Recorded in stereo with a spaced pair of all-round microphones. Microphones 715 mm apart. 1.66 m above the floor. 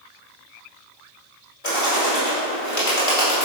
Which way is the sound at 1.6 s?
55° left (ahead or behind).